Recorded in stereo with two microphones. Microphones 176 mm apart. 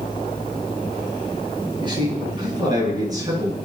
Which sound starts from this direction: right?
A man speaking, at 1.8 s.